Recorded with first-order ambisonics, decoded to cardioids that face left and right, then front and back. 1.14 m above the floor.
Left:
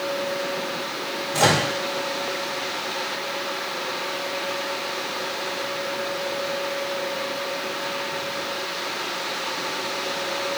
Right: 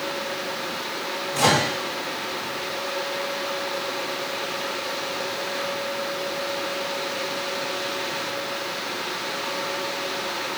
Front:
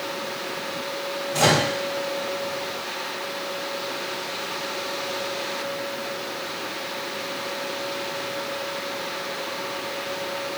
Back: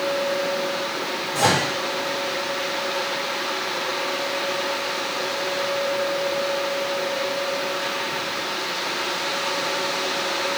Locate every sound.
1.3 s a microwave: 75° left, 1.2 m